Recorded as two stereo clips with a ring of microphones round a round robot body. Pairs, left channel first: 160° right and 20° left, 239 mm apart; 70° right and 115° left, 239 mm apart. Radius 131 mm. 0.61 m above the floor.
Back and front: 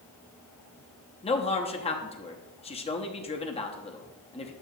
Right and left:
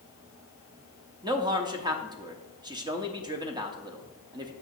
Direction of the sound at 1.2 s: 165° left.